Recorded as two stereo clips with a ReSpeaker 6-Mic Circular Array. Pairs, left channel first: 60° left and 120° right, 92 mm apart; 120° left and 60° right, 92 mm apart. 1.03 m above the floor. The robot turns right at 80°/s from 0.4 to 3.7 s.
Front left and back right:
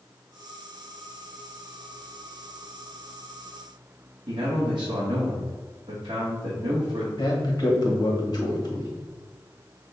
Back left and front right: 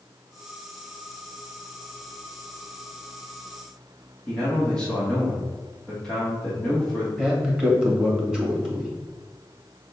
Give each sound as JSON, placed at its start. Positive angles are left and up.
{"t": 4.3, "sound": "a man speaking", "azimuth_deg": -160, "distance_m": 1.1}
{"t": 7.2, "sound": "a man speaking", "azimuth_deg": 20, "distance_m": 1.4}